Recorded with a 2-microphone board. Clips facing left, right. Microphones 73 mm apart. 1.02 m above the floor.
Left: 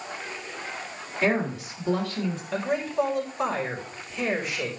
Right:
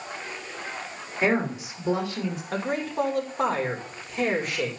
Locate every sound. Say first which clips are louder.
1.2 s a woman speaking: right 1 dB; 20° right (ahead or behind), 3 m
2.5 s a man speaking: left 2 dB; 55° right (ahead or behind), 4.5 m